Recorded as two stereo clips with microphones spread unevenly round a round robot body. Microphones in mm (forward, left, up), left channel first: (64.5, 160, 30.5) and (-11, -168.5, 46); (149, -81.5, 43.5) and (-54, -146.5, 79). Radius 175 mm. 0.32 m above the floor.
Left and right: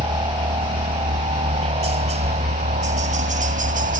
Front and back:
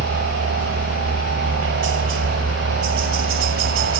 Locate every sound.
0.0 s a helicopter: straight behind; by 4.0 s 165° right